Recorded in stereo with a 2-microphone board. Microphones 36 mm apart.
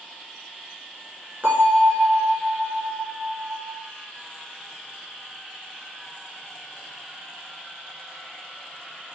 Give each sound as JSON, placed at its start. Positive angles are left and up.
{"t": 1.4, "sound": "a bell", "side_deg": -55, "distance_m": 1.7}